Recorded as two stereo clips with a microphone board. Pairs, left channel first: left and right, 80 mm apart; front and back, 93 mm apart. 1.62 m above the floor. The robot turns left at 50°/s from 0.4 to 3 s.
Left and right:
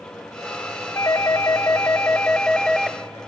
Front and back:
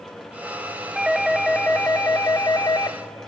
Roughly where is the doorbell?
Left.